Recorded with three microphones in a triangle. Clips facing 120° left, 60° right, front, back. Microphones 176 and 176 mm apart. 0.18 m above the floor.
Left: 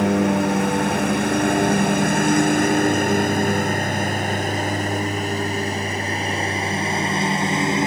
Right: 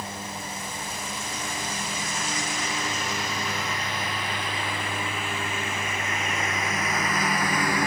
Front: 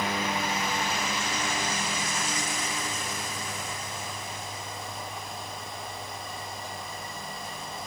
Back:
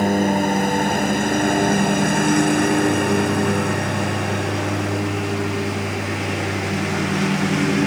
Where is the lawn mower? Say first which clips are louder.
Left 19 dB, back 13 dB; 140° left; by 7.9 s 175° right.